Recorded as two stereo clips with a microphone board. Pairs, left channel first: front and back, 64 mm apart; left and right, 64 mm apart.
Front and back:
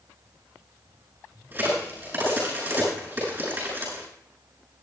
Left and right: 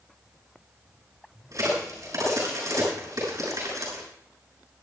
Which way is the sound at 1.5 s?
120° right.